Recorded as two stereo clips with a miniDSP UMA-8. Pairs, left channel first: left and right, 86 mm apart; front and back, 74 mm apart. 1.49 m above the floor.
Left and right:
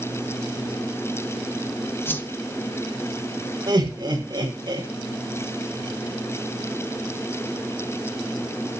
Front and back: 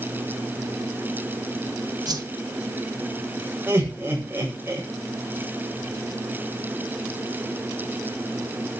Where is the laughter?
120° right, 7 m.